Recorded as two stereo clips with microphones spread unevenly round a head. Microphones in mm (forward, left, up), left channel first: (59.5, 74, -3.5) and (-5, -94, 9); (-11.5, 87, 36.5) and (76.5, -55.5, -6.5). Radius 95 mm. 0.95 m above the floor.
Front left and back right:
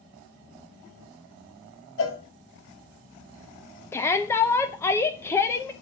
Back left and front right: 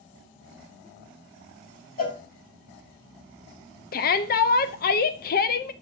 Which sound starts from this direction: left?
A cowbell, at 2.0 s.